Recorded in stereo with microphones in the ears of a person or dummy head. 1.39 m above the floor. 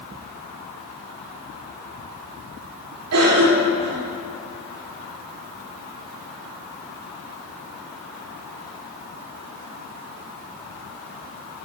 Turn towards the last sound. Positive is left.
turn(degrees=-85)